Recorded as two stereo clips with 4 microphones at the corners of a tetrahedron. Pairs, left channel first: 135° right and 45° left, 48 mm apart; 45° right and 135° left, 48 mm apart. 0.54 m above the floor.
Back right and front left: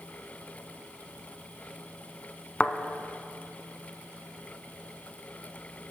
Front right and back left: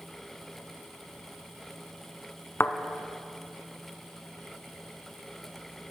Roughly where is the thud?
Right.